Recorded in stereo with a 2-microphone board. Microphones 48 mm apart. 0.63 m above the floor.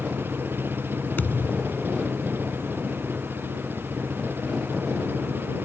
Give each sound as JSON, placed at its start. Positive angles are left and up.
{"t": 0.0, "sound": "an engine running", "side_deg": -50}
{"t": 1.2, "sound": "a thud", "side_deg": 40}